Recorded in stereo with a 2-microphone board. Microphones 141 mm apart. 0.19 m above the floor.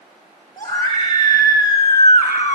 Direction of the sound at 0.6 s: 25° left (ahead or behind).